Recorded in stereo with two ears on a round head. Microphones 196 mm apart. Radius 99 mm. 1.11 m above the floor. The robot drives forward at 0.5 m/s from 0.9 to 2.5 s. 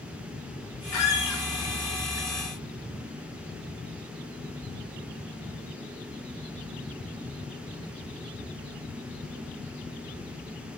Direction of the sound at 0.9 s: 75° left (ahead or behind).